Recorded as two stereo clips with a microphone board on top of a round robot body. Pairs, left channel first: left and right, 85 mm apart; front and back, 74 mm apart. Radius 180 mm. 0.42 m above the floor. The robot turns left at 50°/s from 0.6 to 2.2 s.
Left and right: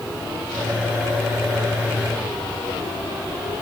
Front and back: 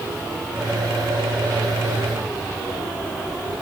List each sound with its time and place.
Only background noise.